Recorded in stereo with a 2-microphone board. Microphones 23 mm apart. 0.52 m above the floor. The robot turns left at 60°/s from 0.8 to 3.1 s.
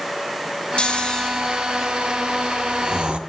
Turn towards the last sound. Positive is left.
turn(degrees=-50)  # may be behind; listen again after turning